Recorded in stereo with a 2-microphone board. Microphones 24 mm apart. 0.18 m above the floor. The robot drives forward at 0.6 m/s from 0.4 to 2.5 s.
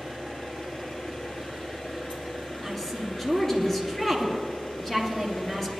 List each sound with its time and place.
0.0 s an engine running: 70° left (ahead or behind), 4 m; by 5.8 s 75° left (ahead or behind), 4 m
2.6 s a woman speaking: 10° left (ahead or behind), 3 m